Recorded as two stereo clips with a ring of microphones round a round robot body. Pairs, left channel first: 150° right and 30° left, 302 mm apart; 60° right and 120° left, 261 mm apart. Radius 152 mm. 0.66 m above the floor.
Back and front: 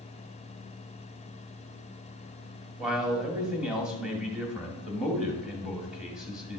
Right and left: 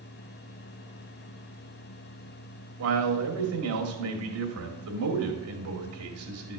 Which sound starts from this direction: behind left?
A man speaking, at 2.8 s.